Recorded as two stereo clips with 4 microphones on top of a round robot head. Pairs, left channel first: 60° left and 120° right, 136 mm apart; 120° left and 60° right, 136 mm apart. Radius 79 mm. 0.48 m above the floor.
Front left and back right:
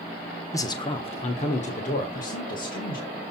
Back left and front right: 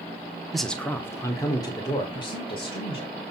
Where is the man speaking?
30° left, 0.8 m; by 3.1 s 70° left, 2 m.